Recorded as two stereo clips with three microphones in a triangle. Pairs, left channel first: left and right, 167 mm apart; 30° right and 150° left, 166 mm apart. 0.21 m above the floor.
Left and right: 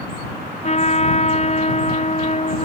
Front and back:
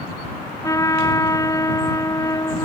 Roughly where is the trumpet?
Ahead left.